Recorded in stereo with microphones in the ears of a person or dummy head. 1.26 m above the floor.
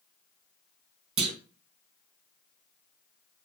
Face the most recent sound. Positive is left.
turn(degrees=-30)  # may be behind; listen again after turning